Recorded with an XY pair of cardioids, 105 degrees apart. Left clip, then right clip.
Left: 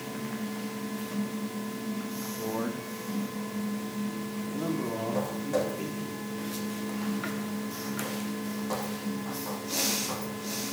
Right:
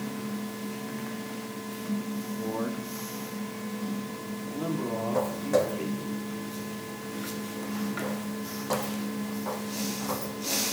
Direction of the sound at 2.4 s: 10° left.